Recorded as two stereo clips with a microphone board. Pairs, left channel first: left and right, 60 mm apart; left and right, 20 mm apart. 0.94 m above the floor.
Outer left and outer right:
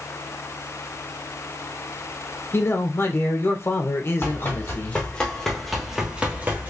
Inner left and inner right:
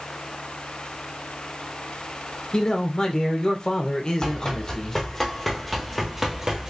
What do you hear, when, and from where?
2.5 s a man speaking: 40° left (ahead or behind), 1.0 m
4.2 s running footsteps: 40° left (ahead or behind), 1.9 m; by 6.7 s 35° right (ahead or behind), 1.4 m